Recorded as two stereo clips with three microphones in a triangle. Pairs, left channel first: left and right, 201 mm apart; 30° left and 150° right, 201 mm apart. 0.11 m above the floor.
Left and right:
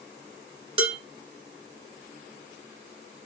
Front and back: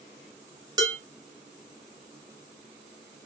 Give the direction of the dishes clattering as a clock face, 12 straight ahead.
3 o'clock.